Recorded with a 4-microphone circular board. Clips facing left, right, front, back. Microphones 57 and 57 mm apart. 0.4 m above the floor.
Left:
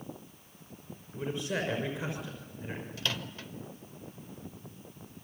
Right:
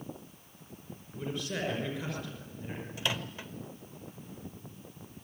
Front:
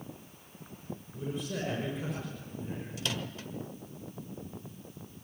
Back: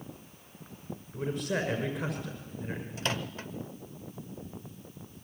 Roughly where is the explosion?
I don't hear an explosion.